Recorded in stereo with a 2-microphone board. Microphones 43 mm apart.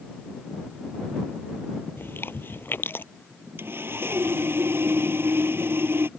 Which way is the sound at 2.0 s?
60° left (ahead or behind).